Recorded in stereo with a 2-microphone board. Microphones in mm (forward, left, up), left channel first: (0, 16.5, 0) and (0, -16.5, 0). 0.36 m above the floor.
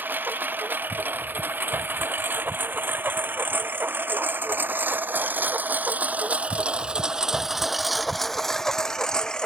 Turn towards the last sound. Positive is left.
turn(degrees=20)  # may be behind; listen again after turning